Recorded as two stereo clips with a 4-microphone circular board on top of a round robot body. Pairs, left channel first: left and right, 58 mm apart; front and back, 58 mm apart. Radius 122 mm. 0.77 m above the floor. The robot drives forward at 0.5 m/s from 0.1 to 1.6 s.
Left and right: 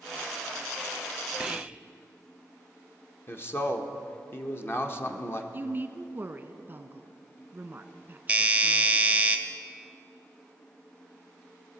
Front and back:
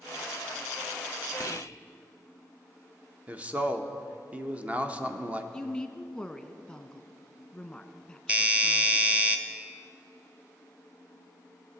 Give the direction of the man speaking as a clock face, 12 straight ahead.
8 o'clock.